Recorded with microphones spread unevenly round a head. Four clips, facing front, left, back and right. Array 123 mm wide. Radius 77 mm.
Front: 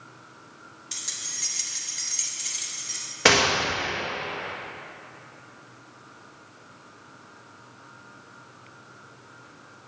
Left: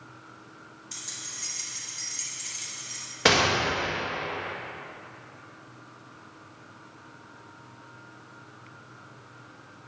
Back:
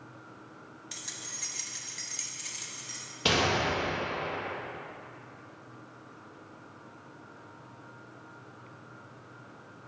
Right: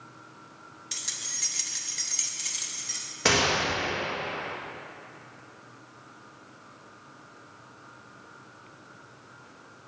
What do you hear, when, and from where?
0.9 s keys jangling: 75° right, 1.0 m; by 3.0 s 55° right, 2 m
3.2 s a gunshot: 20° left, 1.5 m